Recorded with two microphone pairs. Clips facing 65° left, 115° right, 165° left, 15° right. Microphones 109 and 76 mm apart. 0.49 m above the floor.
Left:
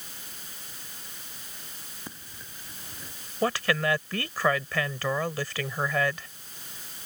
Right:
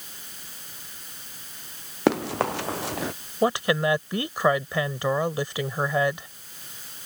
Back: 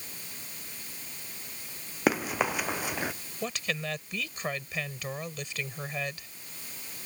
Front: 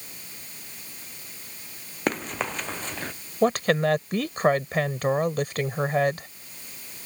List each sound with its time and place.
2.1 s running footsteps: 110° right; by 3.1 s 115° right
3.4 s a woman speaking: 45° right